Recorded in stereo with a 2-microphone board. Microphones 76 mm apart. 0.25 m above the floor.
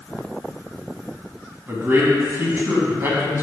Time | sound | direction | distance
1.7 | a man speaking | 30° right (ahead or behind) | 1.9 m